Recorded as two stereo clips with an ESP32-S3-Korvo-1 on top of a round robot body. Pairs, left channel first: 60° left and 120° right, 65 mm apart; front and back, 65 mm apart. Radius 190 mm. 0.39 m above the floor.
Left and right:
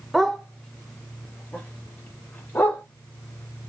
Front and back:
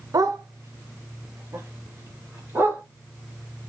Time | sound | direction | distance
0.1 | a dog barking | 150° left | 1.0 m